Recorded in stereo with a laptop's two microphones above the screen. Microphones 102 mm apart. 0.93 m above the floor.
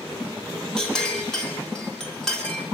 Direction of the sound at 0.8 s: 5° left (ahead or behind).